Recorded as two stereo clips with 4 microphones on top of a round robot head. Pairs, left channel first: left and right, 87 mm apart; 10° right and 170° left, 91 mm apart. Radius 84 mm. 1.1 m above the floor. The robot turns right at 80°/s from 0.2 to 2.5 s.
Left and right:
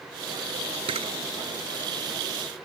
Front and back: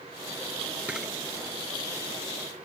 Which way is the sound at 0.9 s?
110° right.